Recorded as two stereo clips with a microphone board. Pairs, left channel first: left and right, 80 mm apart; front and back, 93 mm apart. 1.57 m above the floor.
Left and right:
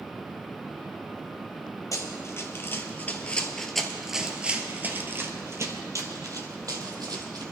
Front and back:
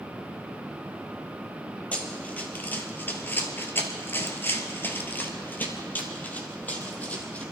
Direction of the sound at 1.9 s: 65° left.